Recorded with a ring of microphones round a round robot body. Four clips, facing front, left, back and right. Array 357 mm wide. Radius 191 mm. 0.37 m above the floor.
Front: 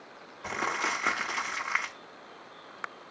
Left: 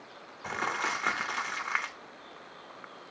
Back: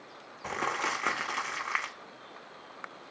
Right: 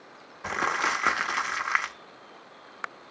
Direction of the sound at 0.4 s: 95° right.